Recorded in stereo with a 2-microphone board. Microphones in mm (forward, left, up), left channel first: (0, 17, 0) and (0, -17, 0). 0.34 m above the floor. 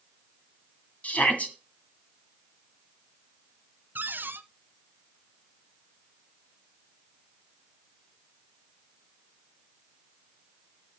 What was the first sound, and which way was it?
A shout, 40° left (ahead or behind).